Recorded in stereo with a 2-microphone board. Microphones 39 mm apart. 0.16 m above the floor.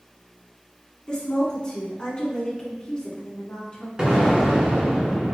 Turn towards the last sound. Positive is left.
turn(degrees=-20)  # may be behind; listen again after turning